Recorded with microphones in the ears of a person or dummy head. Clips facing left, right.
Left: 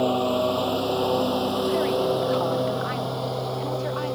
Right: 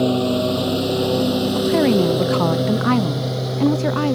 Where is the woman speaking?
75° right (ahead or behind).